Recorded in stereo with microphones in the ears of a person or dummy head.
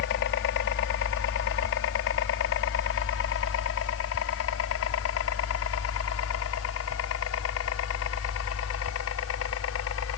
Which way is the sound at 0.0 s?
60° left (ahead or behind).